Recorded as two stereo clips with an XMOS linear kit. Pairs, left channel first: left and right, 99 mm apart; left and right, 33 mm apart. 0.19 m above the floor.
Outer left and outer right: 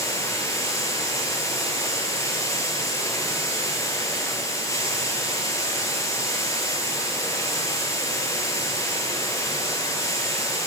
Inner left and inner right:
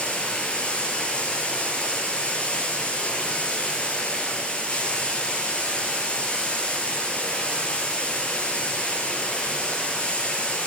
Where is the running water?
30° left (ahead or behind), 3 m.